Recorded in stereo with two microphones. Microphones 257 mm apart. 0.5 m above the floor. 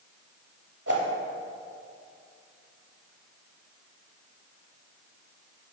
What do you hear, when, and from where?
0.9 s a whoosh: 70° right (ahead or behind), 2 m